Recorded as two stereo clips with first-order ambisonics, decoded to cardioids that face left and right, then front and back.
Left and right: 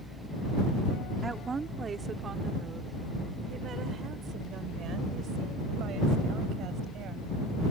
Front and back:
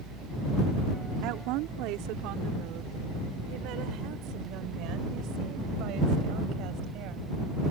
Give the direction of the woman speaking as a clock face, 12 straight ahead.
6 o'clock.